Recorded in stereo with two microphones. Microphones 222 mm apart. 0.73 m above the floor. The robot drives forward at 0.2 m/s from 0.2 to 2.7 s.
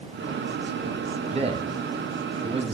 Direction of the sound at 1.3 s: 30° right (ahead or behind).